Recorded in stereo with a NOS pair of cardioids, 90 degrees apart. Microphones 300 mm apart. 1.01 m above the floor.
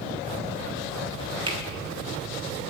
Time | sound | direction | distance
1.5 | a finger snap | 15° right | 1.3 m